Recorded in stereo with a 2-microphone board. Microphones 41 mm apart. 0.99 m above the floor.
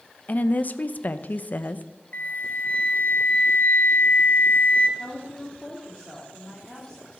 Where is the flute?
40° left (ahead or behind), 1.0 m.